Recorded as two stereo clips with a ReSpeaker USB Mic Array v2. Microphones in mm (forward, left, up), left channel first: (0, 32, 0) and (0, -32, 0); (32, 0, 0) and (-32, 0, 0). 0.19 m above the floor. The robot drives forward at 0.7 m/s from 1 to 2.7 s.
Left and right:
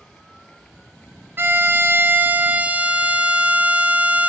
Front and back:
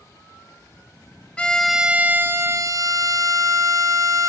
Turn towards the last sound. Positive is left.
turn(degrees=-155)